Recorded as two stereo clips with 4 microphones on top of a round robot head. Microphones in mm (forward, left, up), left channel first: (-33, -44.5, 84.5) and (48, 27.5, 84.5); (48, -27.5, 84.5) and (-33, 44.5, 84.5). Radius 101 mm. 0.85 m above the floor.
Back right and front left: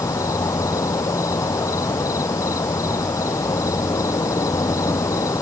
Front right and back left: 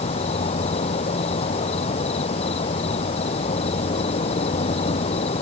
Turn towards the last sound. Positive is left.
turn(degrees=-75)